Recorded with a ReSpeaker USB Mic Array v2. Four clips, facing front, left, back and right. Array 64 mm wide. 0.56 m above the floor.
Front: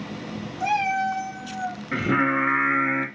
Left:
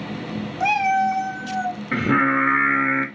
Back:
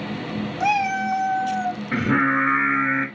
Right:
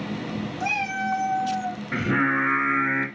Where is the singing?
90° left, 1.0 m.